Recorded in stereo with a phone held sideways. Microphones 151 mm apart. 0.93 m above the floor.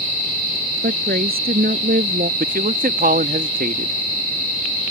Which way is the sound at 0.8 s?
90° right.